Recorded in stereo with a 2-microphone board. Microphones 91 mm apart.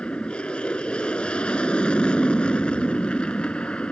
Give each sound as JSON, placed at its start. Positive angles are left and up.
{"t": 0.0, "sound": "an aircraft", "side_deg": 10}